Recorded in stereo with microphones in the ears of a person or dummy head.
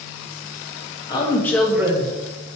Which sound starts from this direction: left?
A woman speaking, at 1.1 s.